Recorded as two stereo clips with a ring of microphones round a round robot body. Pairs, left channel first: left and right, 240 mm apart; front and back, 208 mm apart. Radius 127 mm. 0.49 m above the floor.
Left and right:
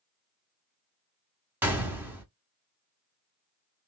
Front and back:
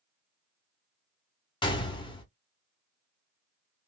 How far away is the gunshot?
About 1.1 m.